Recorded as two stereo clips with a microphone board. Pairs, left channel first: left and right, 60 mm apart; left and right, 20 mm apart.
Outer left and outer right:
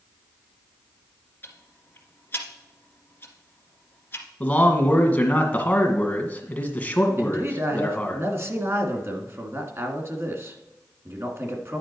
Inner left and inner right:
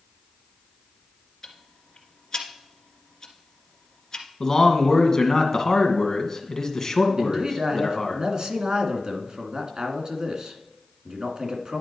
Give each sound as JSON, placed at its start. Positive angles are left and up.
{"t": 1.4, "sound": "ticking", "side_deg": 30, "distance_m": 1.9}
{"t": 4.4, "sound": "a man speaking", "side_deg": 20, "distance_m": 1.8}
{"t": 7.2, "sound": "a man speaking", "side_deg": -40, "distance_m": 1.7}